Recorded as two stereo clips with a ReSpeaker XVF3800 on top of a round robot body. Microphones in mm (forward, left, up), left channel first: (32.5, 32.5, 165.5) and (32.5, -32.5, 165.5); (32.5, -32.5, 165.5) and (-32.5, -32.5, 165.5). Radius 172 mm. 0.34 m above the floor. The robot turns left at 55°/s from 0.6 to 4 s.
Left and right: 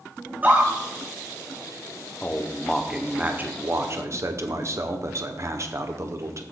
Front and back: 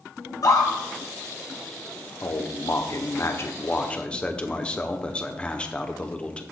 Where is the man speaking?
30° left, 1.2 m; by 6.4 s 70° right, 1.2 m.